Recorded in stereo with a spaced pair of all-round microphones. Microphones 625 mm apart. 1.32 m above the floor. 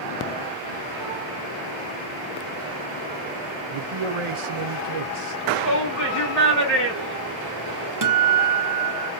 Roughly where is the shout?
Centre.